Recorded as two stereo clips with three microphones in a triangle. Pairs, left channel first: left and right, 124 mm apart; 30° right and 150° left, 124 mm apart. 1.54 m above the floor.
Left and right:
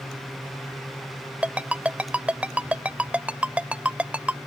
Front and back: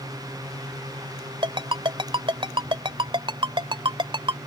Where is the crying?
No crying in this recording.